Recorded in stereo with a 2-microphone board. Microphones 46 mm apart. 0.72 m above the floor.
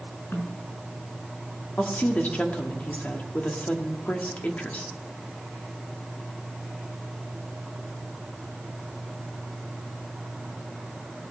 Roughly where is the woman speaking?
Left.